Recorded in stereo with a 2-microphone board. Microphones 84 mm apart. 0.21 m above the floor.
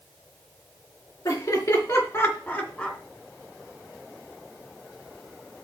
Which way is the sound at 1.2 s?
50° left (ahead or behind).